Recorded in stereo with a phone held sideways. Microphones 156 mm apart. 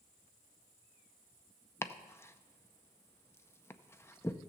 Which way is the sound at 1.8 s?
15° left (ahead or behind).